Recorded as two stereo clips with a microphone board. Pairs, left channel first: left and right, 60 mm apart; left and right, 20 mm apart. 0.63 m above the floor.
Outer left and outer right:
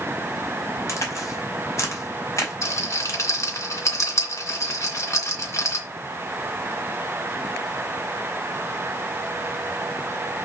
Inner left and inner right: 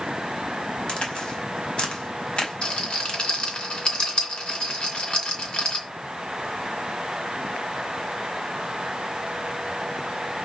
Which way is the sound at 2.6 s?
55° left (ahead or behind).